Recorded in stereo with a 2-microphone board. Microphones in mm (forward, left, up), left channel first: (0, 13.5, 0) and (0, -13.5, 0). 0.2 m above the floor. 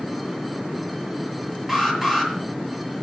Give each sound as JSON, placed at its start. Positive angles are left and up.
{"t": 1.7, "sound": "an alarm", "side_deg": -10, "distance_m": 6.5}